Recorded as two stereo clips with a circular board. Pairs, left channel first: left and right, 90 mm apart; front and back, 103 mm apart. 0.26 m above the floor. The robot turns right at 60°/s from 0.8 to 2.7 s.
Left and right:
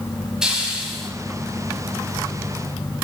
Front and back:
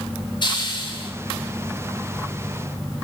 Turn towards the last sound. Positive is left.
turn(degrees=105)